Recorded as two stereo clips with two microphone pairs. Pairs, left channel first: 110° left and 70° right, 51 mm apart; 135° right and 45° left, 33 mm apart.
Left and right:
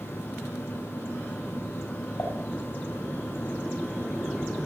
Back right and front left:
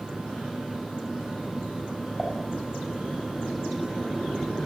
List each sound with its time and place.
2.2 s dishes clattering: 135° left, 8.5 m